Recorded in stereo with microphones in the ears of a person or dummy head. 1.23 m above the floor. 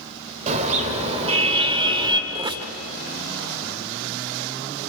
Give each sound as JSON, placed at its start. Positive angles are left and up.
{"t": 0.5, "sound": "a car horn", "side_deg": -40, "distance_m": 3.0}
{"t": 2.3, "sound": "a squeak", "side_deg": -25, "distance_m": 1.2}